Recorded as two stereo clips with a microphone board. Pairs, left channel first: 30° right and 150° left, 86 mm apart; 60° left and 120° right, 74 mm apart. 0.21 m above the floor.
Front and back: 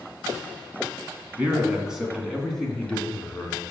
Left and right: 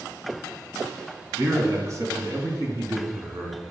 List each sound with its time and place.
1.4 s a man speaking: 145° right, 2.5 m; by 3.6 s 95° right, 3 m